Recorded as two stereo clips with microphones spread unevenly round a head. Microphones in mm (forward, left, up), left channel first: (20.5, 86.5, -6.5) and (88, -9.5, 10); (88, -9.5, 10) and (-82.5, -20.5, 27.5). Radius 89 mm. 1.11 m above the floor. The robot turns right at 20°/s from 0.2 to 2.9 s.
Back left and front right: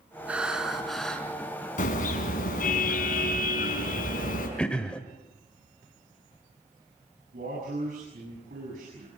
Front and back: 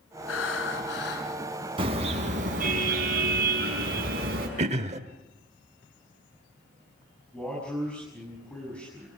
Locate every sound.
0.3 s breathing: 20° left, 4 m; by 1.3 s 40° left, 4 m
1.8 s a car horn: 120° left, 5.5 m; by 4.5 s 145° left, 5.5 m
4.6 s throat clearing: 145° right, 1.0 m
7.3 s a man speaking: 80° right, 7.5 m